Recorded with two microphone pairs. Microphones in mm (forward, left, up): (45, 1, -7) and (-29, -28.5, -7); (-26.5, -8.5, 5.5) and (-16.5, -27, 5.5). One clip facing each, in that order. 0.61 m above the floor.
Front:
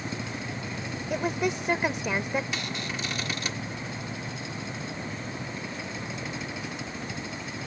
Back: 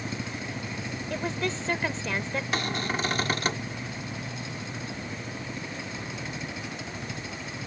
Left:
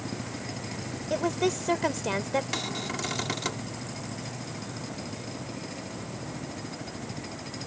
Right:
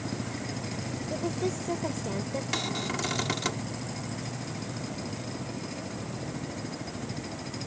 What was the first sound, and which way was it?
A woman speaking, 95° left.